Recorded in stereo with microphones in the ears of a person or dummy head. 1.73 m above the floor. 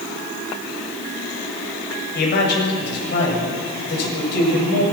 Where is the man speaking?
60° left (ahead or behind), 8 m.